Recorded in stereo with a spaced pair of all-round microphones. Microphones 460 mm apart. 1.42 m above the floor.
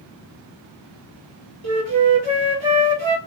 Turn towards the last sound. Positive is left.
turn(degrees=-85)